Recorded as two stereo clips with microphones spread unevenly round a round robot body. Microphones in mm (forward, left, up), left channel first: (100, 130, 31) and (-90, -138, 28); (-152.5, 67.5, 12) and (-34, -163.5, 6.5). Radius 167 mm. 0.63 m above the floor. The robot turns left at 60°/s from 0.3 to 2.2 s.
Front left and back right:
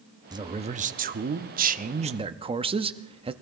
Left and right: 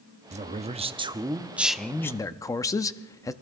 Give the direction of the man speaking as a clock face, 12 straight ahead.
2 o'clock.